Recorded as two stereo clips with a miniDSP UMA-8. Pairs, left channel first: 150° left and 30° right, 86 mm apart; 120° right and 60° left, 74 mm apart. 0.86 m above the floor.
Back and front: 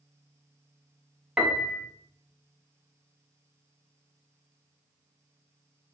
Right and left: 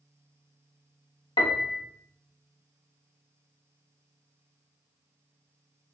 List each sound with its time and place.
1.4 s a piano: 110° right, 0.7 m